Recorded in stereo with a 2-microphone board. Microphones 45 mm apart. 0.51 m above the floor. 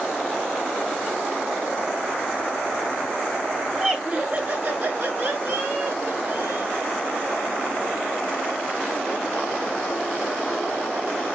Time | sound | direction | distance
3.7 | laughter | 10° right (ahead or behind) | 1.0 m